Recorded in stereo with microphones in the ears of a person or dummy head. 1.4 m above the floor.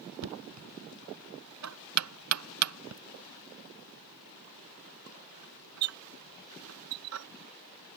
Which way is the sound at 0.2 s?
90° right.